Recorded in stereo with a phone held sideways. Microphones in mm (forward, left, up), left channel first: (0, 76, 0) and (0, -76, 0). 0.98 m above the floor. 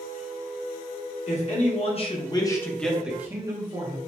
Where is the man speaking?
50° left (ahead or behind), 1.2 m; by 4.0 s 30° right (ahead or behind), 1.1 m.